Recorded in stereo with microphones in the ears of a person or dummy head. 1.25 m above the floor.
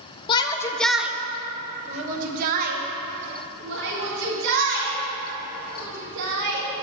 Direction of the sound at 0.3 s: 30° left (ahead or behind).